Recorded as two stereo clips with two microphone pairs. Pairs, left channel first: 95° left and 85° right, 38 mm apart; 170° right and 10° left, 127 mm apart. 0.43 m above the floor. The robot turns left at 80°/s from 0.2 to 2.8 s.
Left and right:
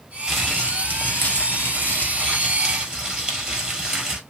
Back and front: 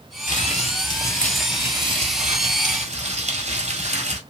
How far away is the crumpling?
About 1.4 m.